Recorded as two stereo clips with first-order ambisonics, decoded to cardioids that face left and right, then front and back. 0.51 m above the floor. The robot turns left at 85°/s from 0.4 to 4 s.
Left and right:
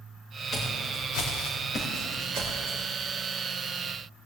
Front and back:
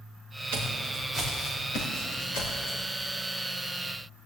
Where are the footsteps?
165° left, 3.5 m; by 2.8 s 80° right, 3.5 m.